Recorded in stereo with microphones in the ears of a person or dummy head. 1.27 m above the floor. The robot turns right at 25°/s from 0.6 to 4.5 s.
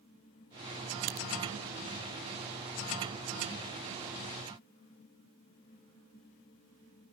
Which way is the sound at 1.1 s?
45° right (ahead or behind).